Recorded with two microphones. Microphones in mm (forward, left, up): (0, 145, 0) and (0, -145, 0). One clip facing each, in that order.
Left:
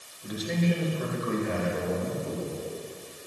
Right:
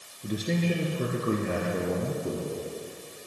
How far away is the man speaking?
About 2.5 m.